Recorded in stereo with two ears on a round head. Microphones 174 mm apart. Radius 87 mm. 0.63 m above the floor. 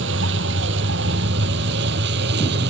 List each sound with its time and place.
0.0 s a vehicle: 65° right (ahead or behind); by 2.7 s 60° right (ahead or behind)